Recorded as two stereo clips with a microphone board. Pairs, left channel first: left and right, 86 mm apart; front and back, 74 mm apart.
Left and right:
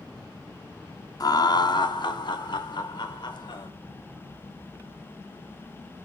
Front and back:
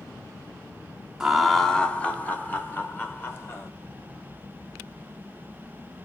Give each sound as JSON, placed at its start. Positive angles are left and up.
{"t": 1.2, "sound": "laughter", "azimuth_deg": 100, "distance_m": 0.5}